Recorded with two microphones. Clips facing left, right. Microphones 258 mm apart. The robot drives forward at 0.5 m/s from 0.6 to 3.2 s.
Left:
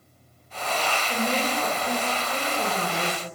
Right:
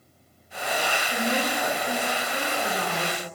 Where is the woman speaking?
35° left (ahead or behind), 5.5 m; by 3.2 s 45° left (ahead or behind), 5 m.